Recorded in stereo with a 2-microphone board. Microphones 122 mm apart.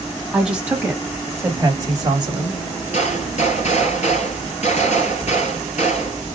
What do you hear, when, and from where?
0.3 s a woman speaking: 5° right (ahead or behind), 1.8 m; by 2.6 s 40° right (ahead or behind), 1.5 m
2.9 s a gunshot: 60° left (ahead or behind), 2.5 m